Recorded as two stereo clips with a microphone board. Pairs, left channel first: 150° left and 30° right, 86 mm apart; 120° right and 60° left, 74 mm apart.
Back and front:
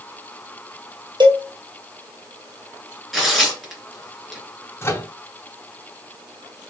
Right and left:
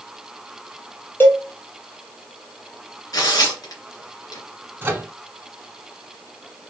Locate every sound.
1.2 s a cowbell: 60° right, 1.3 m
3.1 s tearing paper: 120° right, 2.5 m
4.8 s a microwave: 105° left, 1.0 m